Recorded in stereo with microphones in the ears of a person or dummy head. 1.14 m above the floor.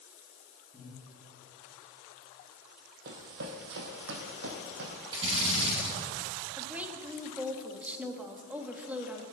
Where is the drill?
25° right (ahead or behind), 5 m.